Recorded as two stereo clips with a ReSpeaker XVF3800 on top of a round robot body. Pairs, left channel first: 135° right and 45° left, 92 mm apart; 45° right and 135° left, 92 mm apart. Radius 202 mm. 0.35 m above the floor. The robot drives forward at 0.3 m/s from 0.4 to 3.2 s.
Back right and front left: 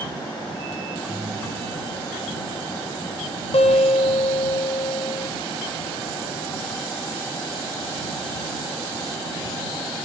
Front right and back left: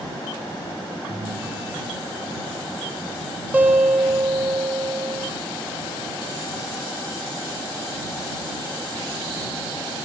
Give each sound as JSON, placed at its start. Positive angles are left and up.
{"t": 1.1, "sound": "a ringtone", "azimuth_deg": 95, "distance_m": 5.5}
{"t": 3.5, "sound": "a guitar", "azimuth_deg": -150, "distance_m": 1.9}